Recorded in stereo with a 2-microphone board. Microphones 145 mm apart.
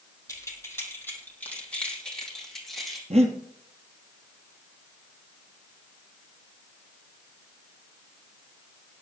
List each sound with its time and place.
0.3 s keys jangling: 20° left (ahead or behind), 3 m; by 3.0 s centre (ahead or behind), 4 m
3.1 s breathing: 50° right (ahead or behind), 1.9 m